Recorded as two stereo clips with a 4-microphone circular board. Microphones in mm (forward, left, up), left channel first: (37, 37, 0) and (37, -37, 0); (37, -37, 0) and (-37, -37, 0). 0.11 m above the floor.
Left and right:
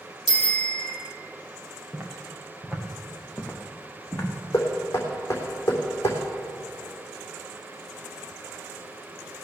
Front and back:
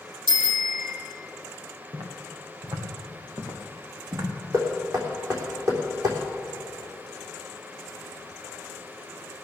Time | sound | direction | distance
0.3 | a bicycle bell | 170° left | 2.5 m
1.9 | footsteps | 155° right | 3.5 m
4.5 | knocking | 145° left | 3.5 m